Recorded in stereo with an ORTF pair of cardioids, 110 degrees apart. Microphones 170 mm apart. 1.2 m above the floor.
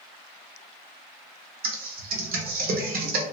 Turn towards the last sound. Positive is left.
turn(degrees=-60)